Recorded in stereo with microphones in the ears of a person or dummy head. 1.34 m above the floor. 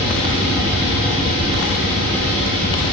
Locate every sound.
0.0 s a fan: 5° left (ahead or behind), 1.9 m